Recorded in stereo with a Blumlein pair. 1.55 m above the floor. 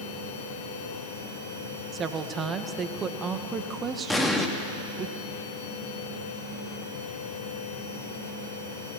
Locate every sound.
0.0 s a machine running: 55° left, 4.5 m
1.9 s a woman speaking: 20° right, 1.7 m
4.1 s an explosion: 5° left, 2 m